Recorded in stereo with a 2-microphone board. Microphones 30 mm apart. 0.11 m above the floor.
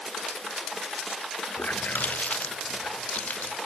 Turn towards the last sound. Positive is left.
turn(degrees=75)  # may be behind; listen again after turning